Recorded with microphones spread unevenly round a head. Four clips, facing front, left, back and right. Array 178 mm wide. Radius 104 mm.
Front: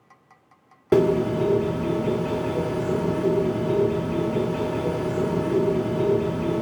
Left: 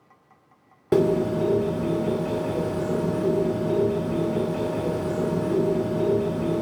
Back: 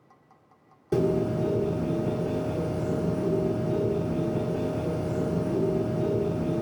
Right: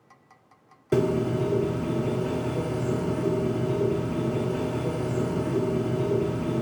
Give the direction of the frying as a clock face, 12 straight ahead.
No frying in this recording.